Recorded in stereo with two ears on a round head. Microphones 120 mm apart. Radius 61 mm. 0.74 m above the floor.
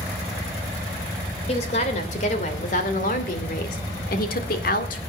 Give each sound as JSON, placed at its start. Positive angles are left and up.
{"t": 1.5, "sound": "a woman speaking", "side_deg": 45, "distance_m": 3.0}